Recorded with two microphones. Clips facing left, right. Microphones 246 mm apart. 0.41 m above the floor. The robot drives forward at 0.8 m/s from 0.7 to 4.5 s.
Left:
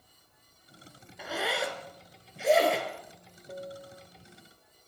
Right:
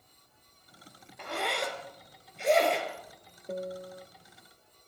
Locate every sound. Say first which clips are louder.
1.2 s a zipper: left 1 dB; 5° left (ahead or behind), 1.8 m
3.5 s a piano: right 5 dB; 60° right (ahead or behind), 0.6 m; by 4.1 s 50° right (ahead or behind), 0.7 m